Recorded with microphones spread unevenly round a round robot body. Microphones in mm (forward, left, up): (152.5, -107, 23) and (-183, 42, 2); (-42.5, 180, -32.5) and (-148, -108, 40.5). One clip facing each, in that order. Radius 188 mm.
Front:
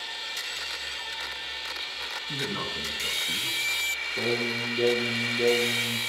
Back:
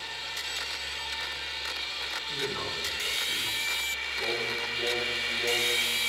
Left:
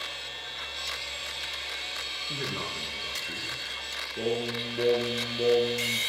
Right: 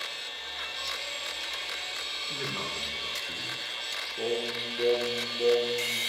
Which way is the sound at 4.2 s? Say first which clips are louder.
Front 6 dB, left 2 dB; 20° left.